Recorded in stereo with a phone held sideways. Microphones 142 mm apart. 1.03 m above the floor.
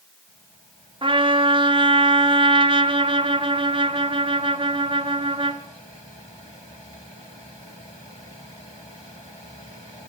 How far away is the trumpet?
About 0.8 m.